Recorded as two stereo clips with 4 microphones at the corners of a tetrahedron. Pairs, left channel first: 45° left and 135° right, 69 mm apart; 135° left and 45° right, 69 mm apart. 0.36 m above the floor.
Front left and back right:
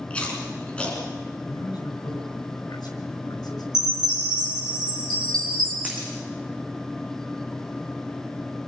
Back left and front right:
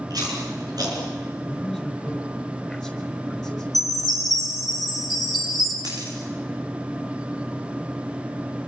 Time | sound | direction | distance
0.1 | chewing | 30° right | 5.5 m
1.4 | a man speaking | 45° left | 5 m
3.7 | a chime | 140° right | 6 m
5.8 | a dropped coin | 70° right | 5.5 m